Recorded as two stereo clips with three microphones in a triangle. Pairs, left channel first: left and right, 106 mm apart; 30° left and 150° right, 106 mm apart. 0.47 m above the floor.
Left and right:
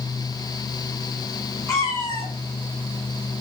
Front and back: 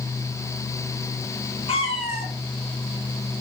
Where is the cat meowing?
30° left, 1.6 m.